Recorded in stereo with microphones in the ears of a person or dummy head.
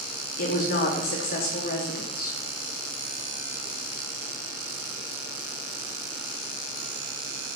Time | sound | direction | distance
0.4 | a woman speaking | 55° left (ahead or behind) | 2.5 m